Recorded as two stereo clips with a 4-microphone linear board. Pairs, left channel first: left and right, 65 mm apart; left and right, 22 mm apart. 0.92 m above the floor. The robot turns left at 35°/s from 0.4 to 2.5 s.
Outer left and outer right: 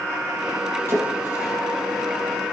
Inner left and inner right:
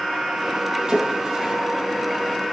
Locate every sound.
0.9 s a splash: 45° right (ahead or behind), 4.5 m; by 1.5 s 25° right (ahead or behind), 4.5 m